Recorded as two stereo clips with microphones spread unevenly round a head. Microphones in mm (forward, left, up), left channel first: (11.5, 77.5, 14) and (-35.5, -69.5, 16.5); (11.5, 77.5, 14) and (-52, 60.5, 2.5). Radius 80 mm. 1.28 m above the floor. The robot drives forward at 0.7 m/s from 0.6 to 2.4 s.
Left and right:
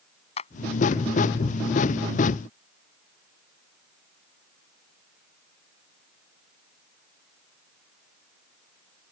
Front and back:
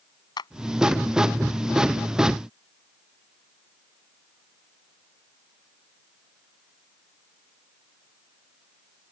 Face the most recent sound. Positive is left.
turn(degrees=20)